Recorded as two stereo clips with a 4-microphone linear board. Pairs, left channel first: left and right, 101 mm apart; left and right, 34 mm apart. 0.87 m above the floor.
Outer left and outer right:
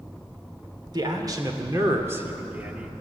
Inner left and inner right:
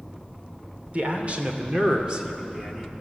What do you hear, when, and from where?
0.9 s a man speaking: 45° right (ahead or behind), 2.5 m; by 2.9 s 10° right (ahead or behind), 1.8 m